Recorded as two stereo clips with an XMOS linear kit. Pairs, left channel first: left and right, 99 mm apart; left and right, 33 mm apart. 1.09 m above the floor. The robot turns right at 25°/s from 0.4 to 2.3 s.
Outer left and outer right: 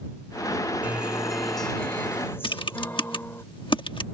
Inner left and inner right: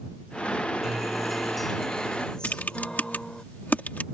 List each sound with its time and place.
0.8 s a guitar: 15° right; by 3.4 s 25° left
2.4 s typing on a keyboard: 55° left (ahead or behind)